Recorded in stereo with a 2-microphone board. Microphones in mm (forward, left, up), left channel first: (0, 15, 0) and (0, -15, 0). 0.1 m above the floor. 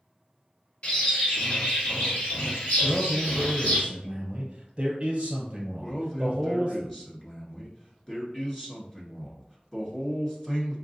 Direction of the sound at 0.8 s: 45° left (ahead or behind).